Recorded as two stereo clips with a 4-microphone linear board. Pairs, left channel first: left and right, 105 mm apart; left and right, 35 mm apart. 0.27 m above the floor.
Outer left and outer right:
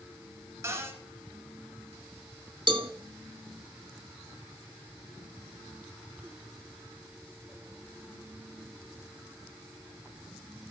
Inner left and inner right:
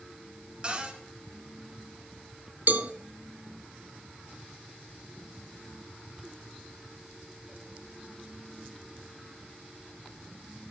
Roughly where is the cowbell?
Right.